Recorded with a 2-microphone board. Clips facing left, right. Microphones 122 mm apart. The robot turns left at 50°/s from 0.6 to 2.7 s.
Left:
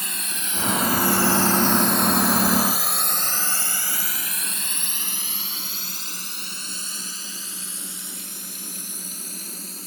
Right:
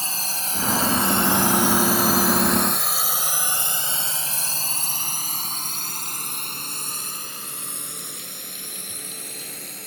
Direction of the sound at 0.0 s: 30° right (ahead or behind).